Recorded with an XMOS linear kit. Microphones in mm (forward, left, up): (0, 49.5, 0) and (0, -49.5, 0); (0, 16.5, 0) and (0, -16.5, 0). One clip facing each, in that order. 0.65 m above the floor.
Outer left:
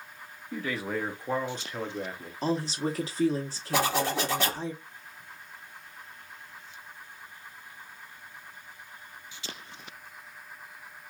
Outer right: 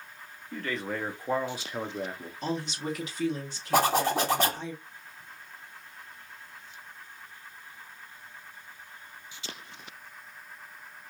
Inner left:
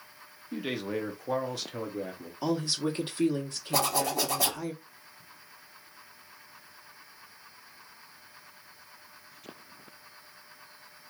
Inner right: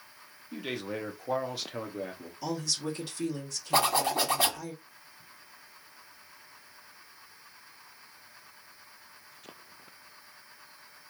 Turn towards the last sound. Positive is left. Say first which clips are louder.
# outer right 3 dB, inner right 2 dB
turn(degrees=-40)  # may be behind; listen again after turning